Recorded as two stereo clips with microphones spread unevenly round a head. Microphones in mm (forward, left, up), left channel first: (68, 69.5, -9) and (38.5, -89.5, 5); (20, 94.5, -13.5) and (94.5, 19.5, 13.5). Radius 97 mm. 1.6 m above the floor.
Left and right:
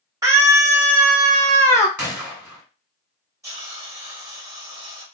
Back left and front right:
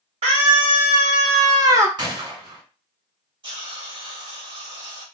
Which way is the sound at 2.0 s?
30° right.